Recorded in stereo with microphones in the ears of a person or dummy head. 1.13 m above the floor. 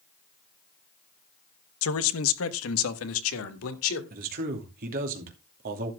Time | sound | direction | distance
1.8 | a man speaking | 75° left (ahead or behind) | 1.0 m
4.1 | a man speaking | 50° right (ahead or behind) | 2.5 m